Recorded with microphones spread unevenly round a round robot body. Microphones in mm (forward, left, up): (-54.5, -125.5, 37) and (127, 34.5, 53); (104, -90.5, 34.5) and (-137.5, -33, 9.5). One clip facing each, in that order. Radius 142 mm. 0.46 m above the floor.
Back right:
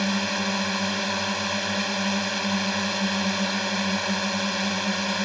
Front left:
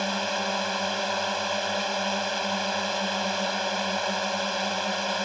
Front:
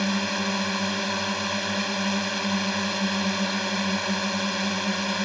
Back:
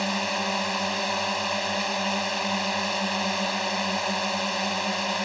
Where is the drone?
80° right.